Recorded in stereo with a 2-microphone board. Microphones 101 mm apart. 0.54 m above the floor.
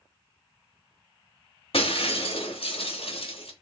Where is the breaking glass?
65° left (ahead or behind), 1.2 m.